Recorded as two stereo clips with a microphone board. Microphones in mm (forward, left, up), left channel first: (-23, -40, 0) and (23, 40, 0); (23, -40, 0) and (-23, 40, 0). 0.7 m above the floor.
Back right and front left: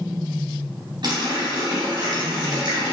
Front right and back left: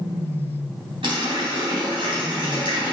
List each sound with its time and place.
1.0 s a running tap: 95° left, 3.5 m